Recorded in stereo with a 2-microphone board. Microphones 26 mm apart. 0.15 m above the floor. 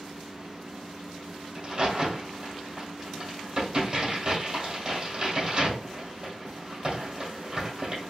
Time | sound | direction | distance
1.6 | a crack | 30° right (ahead or behind) | 2.5 m